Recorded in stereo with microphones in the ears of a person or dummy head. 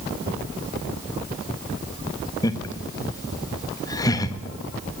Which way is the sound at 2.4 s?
25° left (ahead or behind).